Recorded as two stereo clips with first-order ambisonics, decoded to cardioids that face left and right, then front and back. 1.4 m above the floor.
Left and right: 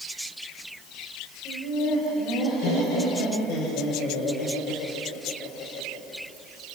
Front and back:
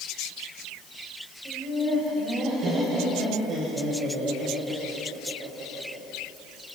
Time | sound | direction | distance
1.4 | laughter | 120° left | 6 m